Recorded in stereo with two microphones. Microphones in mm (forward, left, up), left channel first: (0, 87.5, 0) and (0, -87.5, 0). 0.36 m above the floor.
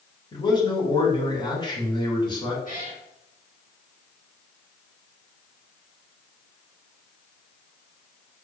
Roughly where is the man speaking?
Left.